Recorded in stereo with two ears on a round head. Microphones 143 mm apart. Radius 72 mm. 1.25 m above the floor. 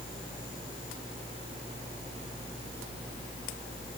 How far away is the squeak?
No squeak in this recording.